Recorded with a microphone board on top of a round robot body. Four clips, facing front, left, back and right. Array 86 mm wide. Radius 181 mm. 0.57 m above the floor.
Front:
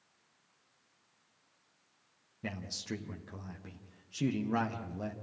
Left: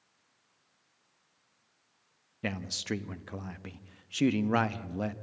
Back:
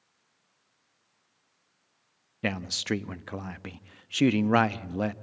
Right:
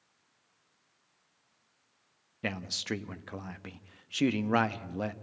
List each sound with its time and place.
2.4 s a man speaking: 175° right, 0.8 m